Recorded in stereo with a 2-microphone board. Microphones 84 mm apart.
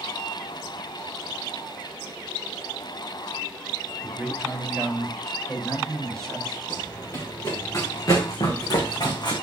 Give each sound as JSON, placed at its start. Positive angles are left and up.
{"t": 4.0, "sound": "a man speaking", "side_deg": -10, "distance_m": 4.5}
{"t": 6.7, "sound": "running footsteps", "side_deg": 30, "distance_m": 5.5}